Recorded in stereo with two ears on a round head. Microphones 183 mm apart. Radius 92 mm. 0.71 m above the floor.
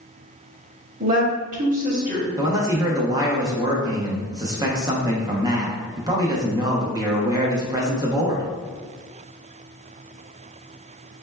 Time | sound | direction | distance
1.0 | a woman speaking | 40° right (ahead or behind) | 0.9 m
2.4 | a man speaking | 20° right (ahead or behind) | 0.6 m